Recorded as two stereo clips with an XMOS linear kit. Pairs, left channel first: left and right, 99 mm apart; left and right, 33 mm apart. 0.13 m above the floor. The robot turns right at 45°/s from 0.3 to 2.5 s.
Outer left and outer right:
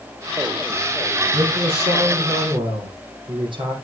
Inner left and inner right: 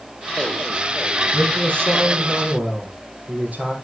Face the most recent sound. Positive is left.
turn(degrees=-60)